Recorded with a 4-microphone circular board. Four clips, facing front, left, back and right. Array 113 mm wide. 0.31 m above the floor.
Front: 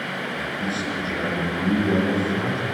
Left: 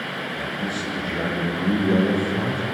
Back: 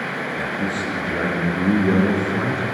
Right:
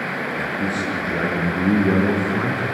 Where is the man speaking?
130° right, 6.5 m; by 2.6 s 120° right, 4 m.